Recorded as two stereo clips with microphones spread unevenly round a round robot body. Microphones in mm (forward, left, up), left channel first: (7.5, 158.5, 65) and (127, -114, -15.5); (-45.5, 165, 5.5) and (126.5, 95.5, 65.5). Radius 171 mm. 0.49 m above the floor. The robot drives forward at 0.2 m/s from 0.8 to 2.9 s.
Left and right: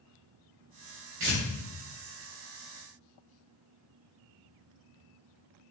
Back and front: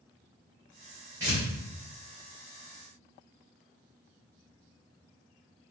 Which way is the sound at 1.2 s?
105° right.